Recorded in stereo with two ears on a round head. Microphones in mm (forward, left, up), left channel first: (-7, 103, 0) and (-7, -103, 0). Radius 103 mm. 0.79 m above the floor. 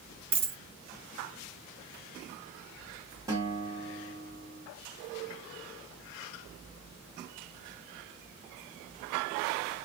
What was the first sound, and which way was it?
A dropped coin, 30° right (ahead or behind).